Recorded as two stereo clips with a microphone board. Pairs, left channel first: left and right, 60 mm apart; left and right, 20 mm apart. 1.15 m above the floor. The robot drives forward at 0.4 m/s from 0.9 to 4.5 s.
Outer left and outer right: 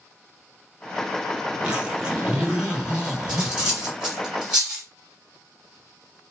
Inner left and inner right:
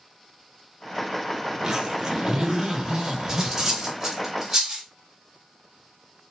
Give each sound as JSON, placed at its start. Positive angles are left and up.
{"t": 1.5, "sound": "a zipper", "side_deg": -20, "distance_m": 4.5}
{"t": 3.3, "sound": "cutlery clinking", "side_deg": -15, "distance_m": 3.0}